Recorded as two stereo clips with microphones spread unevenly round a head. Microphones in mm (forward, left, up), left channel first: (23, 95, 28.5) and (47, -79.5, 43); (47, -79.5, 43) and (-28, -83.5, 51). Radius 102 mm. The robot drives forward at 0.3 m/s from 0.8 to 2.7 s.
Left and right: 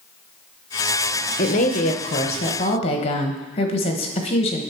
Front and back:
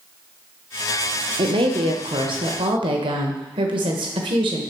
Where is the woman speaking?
150° left, 0.7 m; by 4.6 s 160° left, 1.0 m.